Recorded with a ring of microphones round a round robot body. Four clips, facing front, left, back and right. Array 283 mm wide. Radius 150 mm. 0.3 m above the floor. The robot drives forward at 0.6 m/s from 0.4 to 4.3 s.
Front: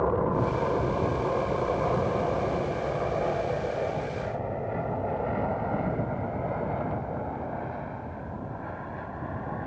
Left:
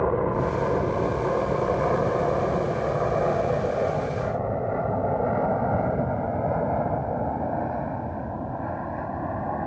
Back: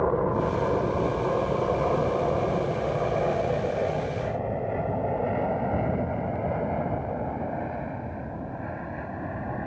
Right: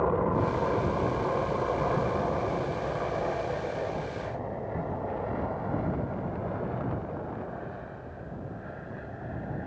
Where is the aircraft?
120° left; by 9.7 s 110° left.